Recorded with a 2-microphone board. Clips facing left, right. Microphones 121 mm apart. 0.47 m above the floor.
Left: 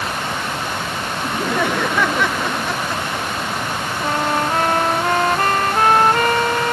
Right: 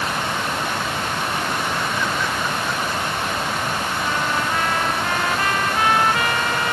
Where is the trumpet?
45° left (ahead or behind).